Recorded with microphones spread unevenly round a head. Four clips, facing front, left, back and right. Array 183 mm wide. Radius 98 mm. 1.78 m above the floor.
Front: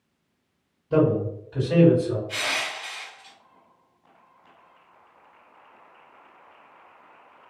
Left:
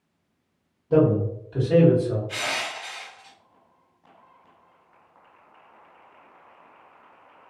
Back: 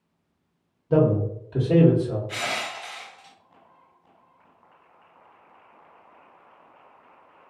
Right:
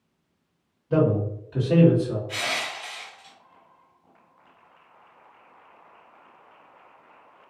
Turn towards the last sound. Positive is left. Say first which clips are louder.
# even, even
turn(degrees=180)